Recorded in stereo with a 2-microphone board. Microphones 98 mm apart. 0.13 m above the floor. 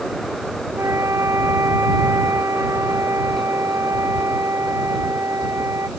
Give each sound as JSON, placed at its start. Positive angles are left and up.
{"t": 0.8, "sound": "a flute", "side_deg": -30}